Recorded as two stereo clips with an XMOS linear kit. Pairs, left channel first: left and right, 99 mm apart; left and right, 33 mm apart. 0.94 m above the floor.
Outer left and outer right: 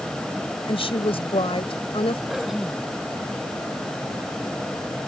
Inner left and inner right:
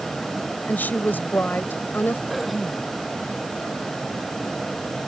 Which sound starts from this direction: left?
A woman speaking, at 0.7 s.